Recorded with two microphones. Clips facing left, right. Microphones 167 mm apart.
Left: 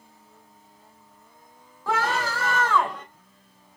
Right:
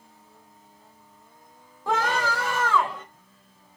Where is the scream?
20° right (ahead or behind), 2.5 m; by 3.0 s 5° right (ahead or behind), 2 m.